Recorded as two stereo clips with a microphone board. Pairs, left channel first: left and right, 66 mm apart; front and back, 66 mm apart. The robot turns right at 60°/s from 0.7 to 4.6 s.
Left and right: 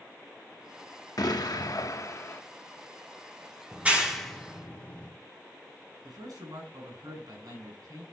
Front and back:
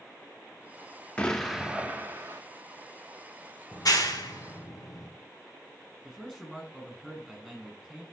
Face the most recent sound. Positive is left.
turn(degrees=-85)